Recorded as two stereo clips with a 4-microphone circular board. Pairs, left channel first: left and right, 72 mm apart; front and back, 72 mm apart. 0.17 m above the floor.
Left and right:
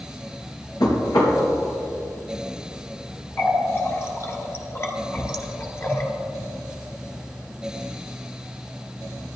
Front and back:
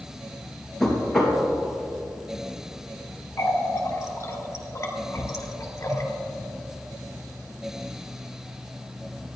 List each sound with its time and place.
0.8 s knocking: 85° left, 3 m
3.4 s a running tap: 40° left, 1.9 m